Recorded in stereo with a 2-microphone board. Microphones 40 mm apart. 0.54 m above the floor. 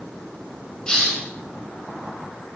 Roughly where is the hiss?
Centre.